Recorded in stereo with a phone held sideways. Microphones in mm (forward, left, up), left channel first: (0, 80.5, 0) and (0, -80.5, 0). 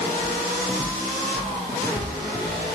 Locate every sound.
0.2 s footsteps: 10° left (ahead or behind), 8.5 m; by 2.8 s 5° left (ahead or behind), 6.5 m